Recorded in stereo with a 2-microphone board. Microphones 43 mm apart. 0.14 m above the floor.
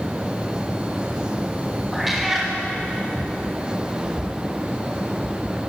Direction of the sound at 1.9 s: 5° right (ahead or behind).